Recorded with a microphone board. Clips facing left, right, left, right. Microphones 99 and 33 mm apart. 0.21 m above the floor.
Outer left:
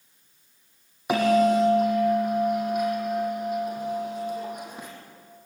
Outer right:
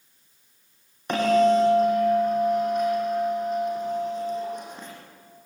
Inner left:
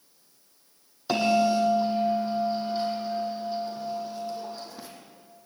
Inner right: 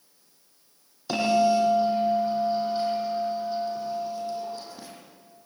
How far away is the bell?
About 5.5 m.